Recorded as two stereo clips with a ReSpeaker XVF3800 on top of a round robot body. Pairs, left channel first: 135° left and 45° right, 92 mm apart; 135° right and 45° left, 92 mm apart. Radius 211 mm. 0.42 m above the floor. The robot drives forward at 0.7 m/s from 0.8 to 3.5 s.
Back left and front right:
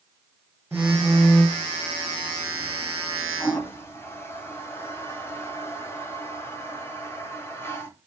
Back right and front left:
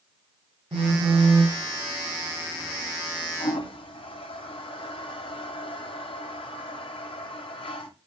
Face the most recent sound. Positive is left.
turn(degrees=-160)